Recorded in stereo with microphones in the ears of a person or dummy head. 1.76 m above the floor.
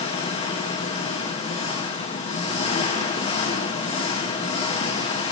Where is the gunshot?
I don't hear a gunshot.